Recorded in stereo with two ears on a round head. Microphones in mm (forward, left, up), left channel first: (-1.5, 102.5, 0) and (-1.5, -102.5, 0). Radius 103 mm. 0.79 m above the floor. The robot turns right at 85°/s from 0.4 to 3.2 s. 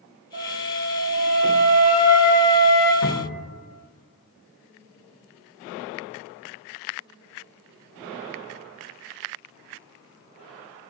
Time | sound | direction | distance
0.3 | a flute | 40° right | 1.5 m
3.0 | a cupboard door | 75° left (ahead or behind) | 1.2 m